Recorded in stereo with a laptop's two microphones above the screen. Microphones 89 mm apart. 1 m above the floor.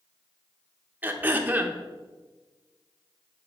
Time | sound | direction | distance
1.0 | throat clearing | 20° right (ahead or behind) | 0.7 m